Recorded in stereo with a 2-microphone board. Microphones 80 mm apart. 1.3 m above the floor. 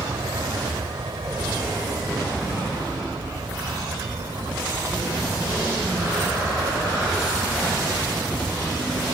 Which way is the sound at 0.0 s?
80° right.